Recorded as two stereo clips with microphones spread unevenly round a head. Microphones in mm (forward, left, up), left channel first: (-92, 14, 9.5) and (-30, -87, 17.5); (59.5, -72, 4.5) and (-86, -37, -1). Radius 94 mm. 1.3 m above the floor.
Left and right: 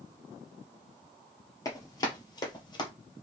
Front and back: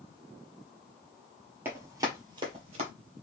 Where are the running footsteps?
105° left, 1.3 m; by 2.9 s 150° left, 1.6 m.